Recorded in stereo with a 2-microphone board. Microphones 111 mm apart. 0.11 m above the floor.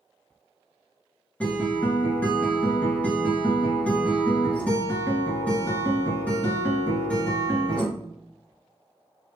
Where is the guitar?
15° left (ahead or behind), 1.8 m.